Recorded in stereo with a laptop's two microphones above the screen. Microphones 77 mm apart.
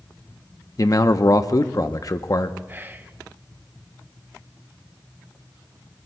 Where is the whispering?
25° right (ahead or behind), 0.6 m.